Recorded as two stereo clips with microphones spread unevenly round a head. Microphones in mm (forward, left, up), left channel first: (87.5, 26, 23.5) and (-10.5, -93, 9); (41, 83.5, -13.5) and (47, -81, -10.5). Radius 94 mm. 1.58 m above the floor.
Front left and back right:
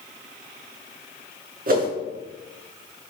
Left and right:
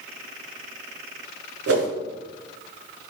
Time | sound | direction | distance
1.7 | a whoosh | 100° right | 5.5 m